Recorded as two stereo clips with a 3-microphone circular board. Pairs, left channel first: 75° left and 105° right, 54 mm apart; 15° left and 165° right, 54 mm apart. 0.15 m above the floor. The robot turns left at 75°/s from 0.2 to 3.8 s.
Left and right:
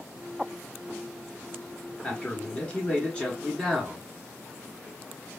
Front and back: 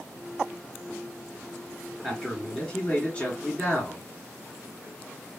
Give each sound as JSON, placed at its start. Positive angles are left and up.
{"t": 2.0, "sound": "a man speaking", "azimuth_deg": 120, "distance_m": 1.5}